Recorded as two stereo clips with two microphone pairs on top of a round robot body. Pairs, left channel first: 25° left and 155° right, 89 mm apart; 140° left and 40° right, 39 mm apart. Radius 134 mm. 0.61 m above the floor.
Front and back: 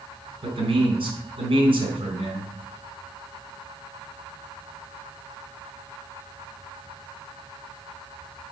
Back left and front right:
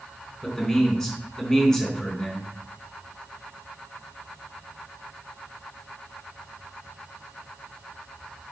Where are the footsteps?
I don't hear footsteps.